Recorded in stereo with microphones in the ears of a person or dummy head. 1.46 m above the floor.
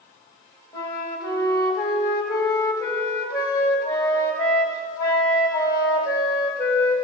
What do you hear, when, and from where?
0.7 s a flute: 20° left (ahead or behind), 1.1 m